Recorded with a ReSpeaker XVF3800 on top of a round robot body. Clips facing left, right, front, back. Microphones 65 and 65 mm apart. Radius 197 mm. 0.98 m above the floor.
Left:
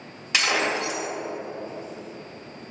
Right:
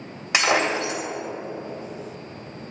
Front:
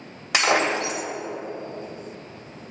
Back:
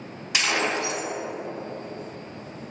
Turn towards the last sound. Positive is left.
turn(degrees=-20)